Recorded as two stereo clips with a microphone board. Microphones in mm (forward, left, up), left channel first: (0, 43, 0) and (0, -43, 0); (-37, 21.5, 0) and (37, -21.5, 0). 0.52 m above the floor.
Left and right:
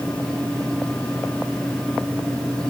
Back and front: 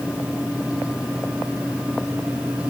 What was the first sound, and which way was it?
Only background noise.